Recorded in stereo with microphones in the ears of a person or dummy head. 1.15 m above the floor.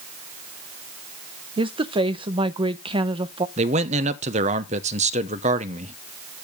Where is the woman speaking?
20° right (ahead or behind), 0.7 m.